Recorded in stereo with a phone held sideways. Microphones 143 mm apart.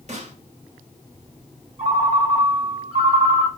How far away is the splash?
I don't hear a splash.